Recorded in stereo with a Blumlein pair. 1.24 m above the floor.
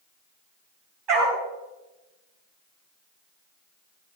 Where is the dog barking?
35° right, 4.5 m.